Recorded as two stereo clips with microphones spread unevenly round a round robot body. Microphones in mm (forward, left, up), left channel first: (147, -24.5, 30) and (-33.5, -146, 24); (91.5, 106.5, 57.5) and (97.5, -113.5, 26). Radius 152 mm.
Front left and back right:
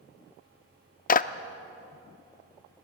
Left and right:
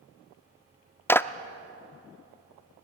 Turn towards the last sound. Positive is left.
turn(degrees=5)